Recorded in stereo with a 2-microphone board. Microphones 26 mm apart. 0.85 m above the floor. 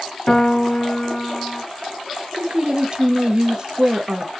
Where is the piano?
30° left (ahead or behind), 0.8 m.